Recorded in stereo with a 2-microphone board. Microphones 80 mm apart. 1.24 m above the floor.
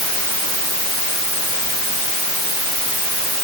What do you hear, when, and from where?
Only background noise.